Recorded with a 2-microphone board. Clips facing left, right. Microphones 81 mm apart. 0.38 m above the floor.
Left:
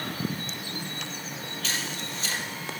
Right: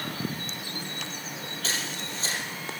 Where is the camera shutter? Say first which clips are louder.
Even; 40° right (ahead or behind), 5 m.